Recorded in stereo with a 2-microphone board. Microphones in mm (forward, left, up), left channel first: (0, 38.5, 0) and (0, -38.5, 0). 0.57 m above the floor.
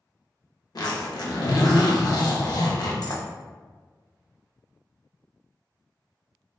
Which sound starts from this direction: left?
A zipper, at 0.8 s.